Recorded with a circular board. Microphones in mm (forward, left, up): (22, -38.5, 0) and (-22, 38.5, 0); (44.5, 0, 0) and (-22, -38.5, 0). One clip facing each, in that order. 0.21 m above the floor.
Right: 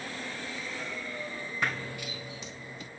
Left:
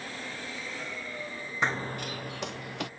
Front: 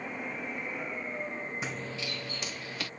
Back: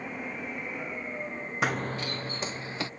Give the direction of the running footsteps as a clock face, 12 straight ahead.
6 o'clock.